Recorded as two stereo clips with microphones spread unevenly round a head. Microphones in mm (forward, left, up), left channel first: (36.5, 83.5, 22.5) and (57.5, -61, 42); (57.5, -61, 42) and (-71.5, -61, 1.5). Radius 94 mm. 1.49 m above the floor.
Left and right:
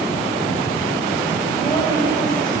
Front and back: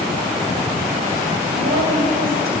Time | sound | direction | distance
1.6 | a woman speaking | 170° left | 6.5 m